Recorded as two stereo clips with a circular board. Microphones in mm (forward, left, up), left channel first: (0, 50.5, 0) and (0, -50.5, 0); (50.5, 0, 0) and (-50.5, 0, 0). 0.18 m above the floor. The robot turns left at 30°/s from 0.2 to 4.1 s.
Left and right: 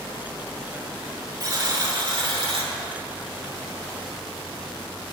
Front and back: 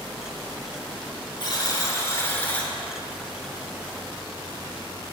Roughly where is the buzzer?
Ahead right.